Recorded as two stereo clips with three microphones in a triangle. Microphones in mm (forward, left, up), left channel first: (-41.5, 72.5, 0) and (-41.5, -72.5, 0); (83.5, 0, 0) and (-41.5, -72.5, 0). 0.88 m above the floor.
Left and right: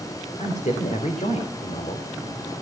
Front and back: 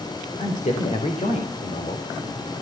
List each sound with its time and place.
0.4 s a man speaking: 60° left, 3 m